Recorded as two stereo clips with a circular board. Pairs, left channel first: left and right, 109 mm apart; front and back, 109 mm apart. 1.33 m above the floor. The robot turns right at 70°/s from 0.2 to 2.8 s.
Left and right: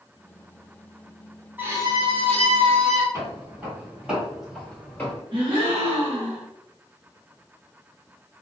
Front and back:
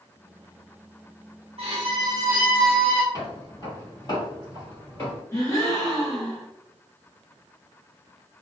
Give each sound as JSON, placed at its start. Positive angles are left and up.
{"t": 1.6, "sound": "a violin", "azimuth_deg": -165, "distance_m": 0.8}
{"t": 3.1, "sound": "footsteps", "azimuth_deg": -40, "distance_m": 1.9}
{"t": 5.3, "sound": "a gasp", "azimuth_deg": -55, "distance_m": 1.0}